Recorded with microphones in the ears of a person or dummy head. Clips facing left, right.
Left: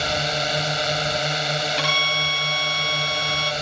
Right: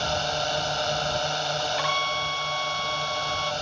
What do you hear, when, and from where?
0.0 s a drone: 30° left (ahead or behind)
1.8 s a violin: 40° left (ahead or behind)